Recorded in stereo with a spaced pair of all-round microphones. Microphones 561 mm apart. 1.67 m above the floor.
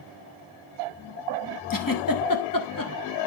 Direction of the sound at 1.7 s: 35° left (ahead or behind).